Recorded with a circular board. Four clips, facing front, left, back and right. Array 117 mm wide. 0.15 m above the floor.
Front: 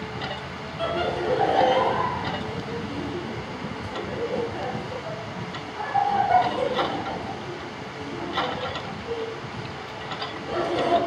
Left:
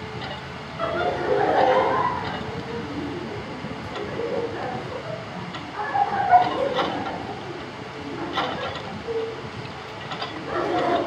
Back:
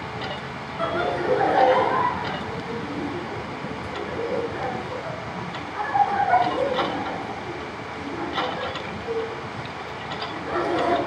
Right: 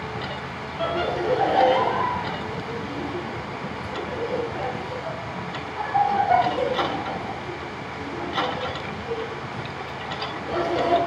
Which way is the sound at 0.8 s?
135° left.